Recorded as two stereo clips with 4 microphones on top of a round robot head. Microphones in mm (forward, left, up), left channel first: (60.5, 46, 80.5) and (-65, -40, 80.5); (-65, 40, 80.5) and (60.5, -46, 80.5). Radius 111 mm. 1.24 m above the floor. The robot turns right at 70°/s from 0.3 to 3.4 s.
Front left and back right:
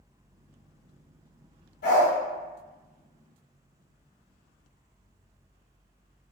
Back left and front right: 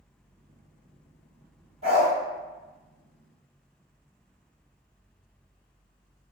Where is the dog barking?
15° left, 1.8 m; by 2.1 s 35° left, 1.8 m.